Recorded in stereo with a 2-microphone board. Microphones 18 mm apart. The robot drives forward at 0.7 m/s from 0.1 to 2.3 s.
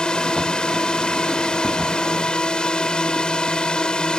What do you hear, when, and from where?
0.0 s a drone: 60° left (ahead or behind)